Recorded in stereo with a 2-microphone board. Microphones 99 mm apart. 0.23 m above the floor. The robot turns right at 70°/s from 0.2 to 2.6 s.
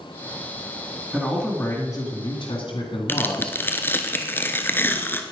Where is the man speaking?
15° right, 2 m; by 4.1 s 90° left, 2 m.